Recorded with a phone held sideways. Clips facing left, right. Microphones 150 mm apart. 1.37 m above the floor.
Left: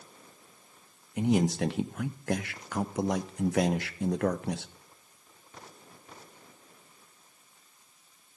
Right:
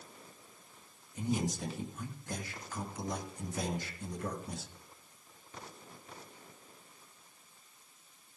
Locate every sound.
1.2 s a man speaking: 70° left (ahead or behind), 0.6 m